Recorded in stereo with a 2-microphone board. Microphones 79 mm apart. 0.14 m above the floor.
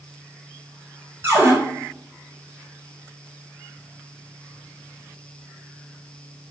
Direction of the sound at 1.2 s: 30° right (ahead or behind).